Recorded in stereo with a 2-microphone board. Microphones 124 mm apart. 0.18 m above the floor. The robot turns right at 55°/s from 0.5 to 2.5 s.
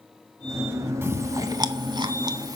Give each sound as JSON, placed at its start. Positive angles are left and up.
{"t": 1.0, "sound": "chewing", "side_deg": -20, "distance_m": 0.8}